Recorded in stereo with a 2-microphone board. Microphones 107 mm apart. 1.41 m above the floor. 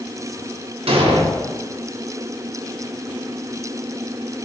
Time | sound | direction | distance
0.9 | an explosion | 70° right (ahead or behind) | 0.7 m